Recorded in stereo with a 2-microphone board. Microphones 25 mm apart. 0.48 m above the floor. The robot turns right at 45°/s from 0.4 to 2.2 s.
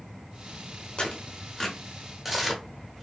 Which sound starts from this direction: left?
Tearing paper, at 1.0 s.